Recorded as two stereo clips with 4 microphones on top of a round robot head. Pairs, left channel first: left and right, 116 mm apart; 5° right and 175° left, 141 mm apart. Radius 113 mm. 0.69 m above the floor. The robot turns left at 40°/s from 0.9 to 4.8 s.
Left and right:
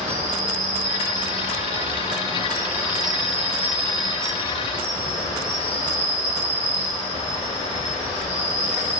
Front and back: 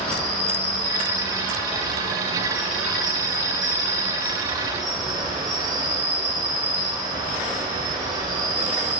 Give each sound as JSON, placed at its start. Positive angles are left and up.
{"t": 0.0, "sound": "an insect", "azimuth_deg": -85, "distance_m": 1.2}